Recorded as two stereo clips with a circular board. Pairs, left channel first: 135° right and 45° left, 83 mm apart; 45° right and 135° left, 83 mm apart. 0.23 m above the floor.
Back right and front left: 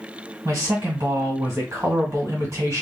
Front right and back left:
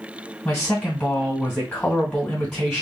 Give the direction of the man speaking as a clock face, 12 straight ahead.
11 o'clock.